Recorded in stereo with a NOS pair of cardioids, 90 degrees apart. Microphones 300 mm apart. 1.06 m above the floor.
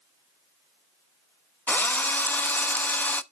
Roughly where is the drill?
Ahead.